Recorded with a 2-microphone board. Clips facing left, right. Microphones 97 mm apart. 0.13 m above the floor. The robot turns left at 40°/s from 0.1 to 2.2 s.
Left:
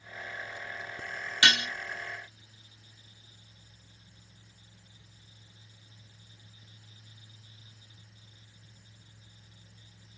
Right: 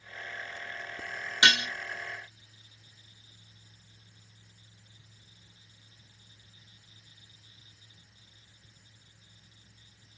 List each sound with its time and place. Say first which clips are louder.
1.4 s dishes clattering: right 1 dB; 20° right (ahead or behind), 1.1 m